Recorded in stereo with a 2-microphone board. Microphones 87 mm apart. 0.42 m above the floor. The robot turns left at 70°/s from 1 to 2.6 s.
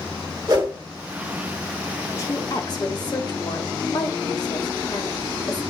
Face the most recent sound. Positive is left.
turn(degrees=45)  # may be behind; listen again after turning